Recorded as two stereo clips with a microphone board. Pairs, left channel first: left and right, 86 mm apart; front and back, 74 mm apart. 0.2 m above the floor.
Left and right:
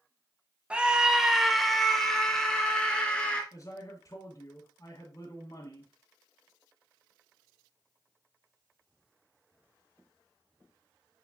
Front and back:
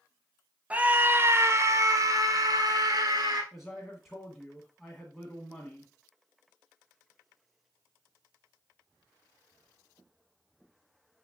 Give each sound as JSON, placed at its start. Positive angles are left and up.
{"t": 0.7, "sound": "a scream", "azimuth_deg": -145, "distance_m": 1.1}
{"t": 3.5, "sound": "a man speaking", "azimuth_deg": 85, "distance_m": 1.8}